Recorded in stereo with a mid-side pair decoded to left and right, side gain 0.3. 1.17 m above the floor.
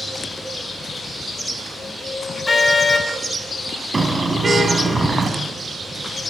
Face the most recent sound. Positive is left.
turn(degrees=-30)